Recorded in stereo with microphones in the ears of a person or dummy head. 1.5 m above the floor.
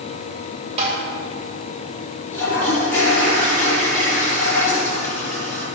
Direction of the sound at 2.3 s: 15° left (ahead or behind).